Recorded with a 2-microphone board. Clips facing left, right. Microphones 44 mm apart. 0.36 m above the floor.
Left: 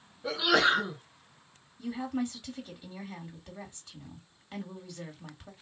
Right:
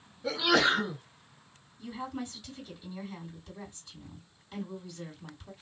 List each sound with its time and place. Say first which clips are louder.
0.2 s a sneeze: even; 15° left (ahead or behind), 2 m
1.8 s a woman speaking: left 5 dB; 40° left (ahead or behind), 2 m